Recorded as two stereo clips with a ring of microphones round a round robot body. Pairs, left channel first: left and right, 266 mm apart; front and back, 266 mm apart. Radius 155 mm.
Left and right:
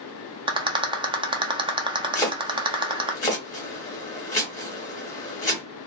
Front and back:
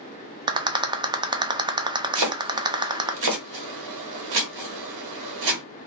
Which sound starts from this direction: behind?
Chopping, at 2.1 s.